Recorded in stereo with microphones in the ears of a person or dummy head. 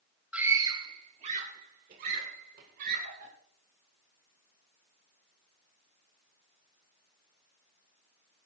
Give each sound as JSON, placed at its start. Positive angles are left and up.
{"t": 0.3, "sound": "a scream", "side_deg": -10, "distance_m": 0.7}